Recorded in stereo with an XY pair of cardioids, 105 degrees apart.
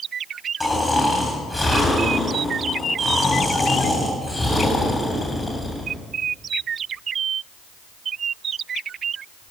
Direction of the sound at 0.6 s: 20° left.